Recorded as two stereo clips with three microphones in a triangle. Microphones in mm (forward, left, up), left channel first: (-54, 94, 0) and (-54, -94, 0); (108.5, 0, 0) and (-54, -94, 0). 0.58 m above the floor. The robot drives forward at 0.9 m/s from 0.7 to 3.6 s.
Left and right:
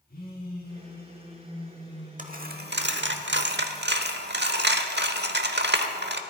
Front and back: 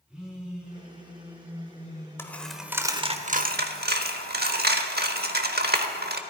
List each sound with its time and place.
0.1 s a phone buzzing: 125° left, 4.5 m; by 3.2 s 145° left, 6 m
2.2 s a dropped coin: 50° right, 1.2 m; by 6.2 s 115° right, 1.0 m